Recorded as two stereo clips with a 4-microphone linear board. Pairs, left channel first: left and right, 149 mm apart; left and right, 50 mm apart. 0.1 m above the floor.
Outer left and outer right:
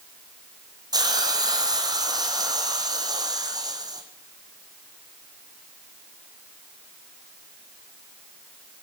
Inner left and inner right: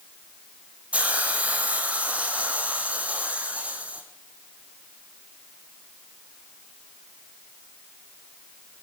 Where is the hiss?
25° right (ahead or behind), 1.8 m.